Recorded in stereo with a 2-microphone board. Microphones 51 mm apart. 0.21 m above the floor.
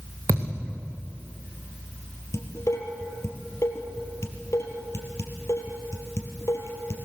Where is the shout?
No shout in this recording.